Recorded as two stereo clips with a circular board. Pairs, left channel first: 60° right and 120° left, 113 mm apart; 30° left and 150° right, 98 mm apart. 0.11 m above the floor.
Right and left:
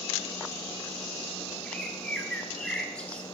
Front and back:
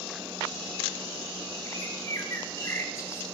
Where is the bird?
15° left, 0.8 m.